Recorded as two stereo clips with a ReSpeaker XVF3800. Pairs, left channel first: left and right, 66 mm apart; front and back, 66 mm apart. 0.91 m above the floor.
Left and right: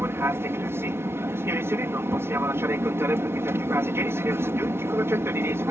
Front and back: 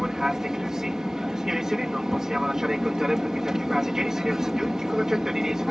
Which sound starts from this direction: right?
An aircraft, at 0.0 s.